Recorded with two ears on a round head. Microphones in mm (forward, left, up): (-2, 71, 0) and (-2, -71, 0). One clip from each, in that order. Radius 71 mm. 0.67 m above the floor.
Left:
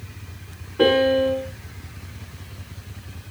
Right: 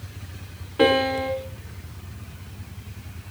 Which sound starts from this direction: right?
A piano, at 0.8 s.